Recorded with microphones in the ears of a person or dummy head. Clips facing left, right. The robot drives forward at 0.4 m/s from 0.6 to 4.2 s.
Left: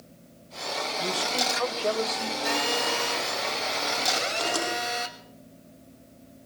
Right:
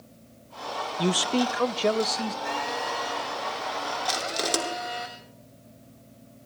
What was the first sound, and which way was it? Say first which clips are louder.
A man speaking: right 8 dB; 65° right (ahead or behind).